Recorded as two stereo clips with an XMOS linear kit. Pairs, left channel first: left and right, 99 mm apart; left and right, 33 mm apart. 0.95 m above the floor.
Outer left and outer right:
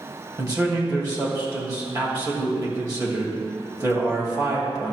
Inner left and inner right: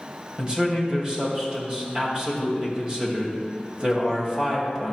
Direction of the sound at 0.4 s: 35° right (ahead or behind).